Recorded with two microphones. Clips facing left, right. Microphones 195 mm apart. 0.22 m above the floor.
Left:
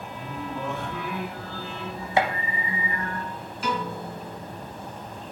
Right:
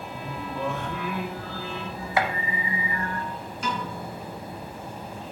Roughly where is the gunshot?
Left.